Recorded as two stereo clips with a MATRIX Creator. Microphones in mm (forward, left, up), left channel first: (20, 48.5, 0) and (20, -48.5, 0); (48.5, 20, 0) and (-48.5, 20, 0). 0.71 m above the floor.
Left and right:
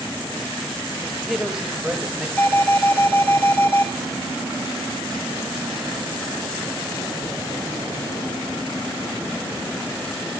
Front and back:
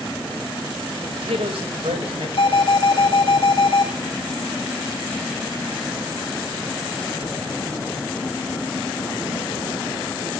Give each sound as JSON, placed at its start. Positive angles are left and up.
{"t": 1.0, "sound": "a man speaking", "azimuth_deg": -175, "distance_m": 3.5}
{"t": 2.4, "sound": "an alarm", "azimuth_deg": 15, "distance_m": 5.0}